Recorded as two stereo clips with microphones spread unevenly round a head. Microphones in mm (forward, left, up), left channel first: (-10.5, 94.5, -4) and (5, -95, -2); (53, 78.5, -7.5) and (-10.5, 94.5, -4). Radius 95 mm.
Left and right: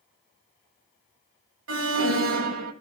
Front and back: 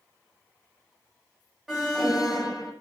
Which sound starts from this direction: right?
An alarm, at 1.7 s.